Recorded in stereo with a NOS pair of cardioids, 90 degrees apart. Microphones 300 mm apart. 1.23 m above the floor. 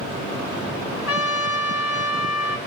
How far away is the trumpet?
About 3 m.